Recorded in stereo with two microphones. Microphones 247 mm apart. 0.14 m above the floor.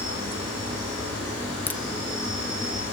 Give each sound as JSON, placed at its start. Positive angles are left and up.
{"t": 0.0, "sound": "an insect", "side_deg": 85, "distance_m": 9.0}
{"t": 1.7, "sound": "a crack", "side_deg": 5, "distance_m": 0.7}